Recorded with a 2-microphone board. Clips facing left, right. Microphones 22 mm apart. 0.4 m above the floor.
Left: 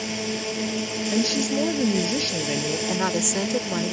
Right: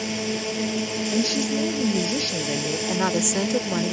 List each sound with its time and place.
0.0 s a drone: centre (ahead or behind)
1.1 s a woman speaking: 50° left (ahead or behind)
2.9 s a woman speaking: centre (ahead or behind)